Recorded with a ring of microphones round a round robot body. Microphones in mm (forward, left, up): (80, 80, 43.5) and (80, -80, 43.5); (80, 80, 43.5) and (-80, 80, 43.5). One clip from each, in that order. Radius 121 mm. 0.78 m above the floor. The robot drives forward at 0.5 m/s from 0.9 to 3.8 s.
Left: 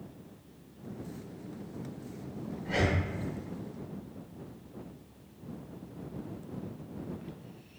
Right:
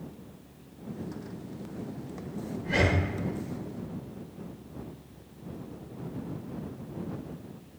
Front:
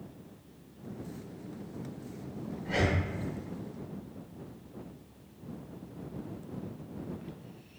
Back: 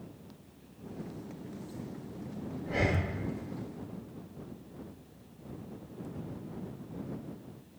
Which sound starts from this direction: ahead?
Breathing, at 2.6 s.